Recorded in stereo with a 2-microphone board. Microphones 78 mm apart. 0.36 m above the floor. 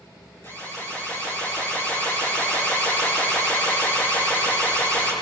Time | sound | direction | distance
0.4 | an alarm | 30° left (ahead or behind) | 9.5 m